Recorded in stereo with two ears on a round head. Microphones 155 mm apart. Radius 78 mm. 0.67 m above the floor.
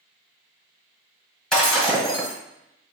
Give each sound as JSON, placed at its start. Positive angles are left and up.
{"t": 1.5, "sound": "breaking glass", "side_deg": 5, "distance_m": 1.0}